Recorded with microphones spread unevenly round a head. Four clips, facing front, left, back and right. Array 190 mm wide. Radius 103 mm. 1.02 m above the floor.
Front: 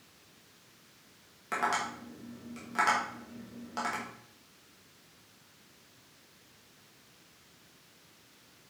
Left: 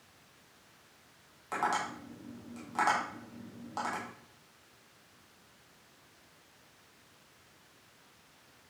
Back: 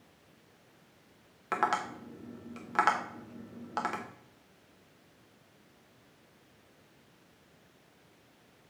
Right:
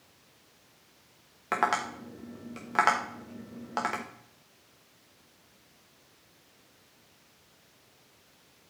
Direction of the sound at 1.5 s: 105° right.